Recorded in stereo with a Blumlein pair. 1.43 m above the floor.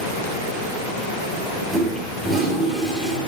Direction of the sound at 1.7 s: 10° right.